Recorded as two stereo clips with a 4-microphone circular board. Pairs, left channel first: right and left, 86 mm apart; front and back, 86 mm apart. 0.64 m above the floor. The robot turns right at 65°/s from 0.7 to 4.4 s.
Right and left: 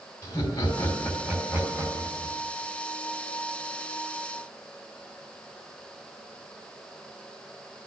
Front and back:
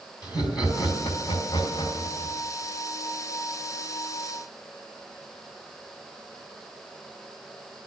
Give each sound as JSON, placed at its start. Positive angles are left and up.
{"t": 0.2, "sound": "laughter", "azimuth_deg": -40, "distance_m": 3.5}